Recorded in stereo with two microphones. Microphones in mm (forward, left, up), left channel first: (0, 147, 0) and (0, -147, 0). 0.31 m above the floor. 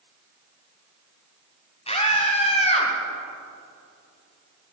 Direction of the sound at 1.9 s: 20° left (ahead or behind).